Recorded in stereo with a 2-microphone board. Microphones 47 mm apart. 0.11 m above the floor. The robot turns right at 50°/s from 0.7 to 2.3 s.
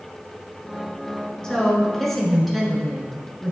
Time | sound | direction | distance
1.4 | a woman speaking | 15° left (ahead or behind) | 1.3 m